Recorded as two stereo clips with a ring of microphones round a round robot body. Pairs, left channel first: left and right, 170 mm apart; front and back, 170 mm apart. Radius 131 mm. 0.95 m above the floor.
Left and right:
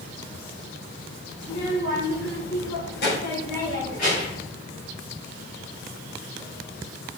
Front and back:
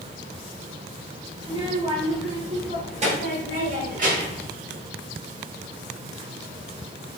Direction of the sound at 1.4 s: 115° left.